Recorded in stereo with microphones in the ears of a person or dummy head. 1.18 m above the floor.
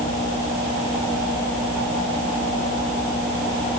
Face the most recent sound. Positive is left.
No sound to turn to.